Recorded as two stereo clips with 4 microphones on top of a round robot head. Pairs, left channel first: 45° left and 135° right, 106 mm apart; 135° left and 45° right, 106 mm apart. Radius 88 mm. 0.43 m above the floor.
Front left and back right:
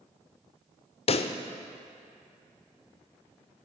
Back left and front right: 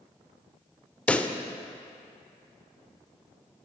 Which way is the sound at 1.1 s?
60° left.